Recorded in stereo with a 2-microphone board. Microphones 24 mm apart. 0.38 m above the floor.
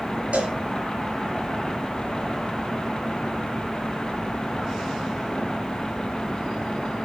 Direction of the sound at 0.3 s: 65° right (ahead or behind).